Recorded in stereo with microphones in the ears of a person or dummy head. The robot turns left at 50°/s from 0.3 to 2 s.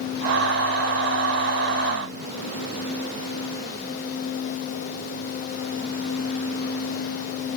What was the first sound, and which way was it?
Only background noise.